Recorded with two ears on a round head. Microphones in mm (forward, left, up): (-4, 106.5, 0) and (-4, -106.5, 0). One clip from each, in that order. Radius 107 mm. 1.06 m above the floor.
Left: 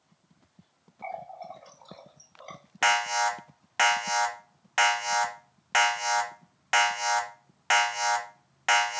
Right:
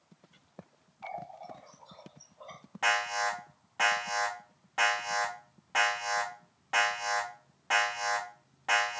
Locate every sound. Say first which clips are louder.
1.0 s a running tap: left 3 dB; 60° left (ahead or behind), 1.2 m
2.8 s an alarm: left 4 dB; 65° left (ahead or behind), 0.7 m